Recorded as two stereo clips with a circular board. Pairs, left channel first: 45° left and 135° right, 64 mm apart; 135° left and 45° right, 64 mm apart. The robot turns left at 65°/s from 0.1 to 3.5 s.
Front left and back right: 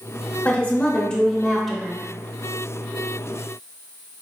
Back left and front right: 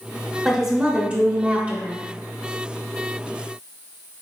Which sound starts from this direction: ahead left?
A woman speaking, at 0.5 s.